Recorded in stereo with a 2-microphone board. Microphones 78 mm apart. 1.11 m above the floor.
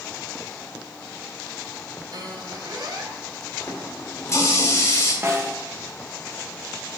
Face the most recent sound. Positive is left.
turn(degrees=-30)  # may be behind; listen again after turning